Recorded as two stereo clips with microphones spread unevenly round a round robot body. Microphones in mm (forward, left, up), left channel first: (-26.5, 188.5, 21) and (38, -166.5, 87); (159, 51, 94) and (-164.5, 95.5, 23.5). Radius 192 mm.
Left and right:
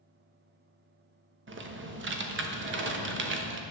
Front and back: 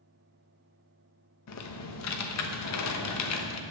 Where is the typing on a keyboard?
25° right, 1.3 m.